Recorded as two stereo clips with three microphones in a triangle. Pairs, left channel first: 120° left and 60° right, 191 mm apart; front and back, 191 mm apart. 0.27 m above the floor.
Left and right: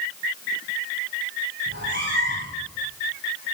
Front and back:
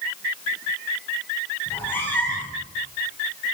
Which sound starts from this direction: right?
A cat meowing, at 1.7 s.